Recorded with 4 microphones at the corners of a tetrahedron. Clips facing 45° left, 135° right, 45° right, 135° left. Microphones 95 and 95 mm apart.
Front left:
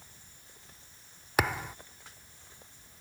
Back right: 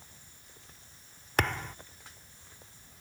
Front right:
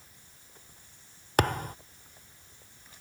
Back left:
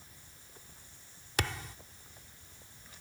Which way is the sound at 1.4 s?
35° right.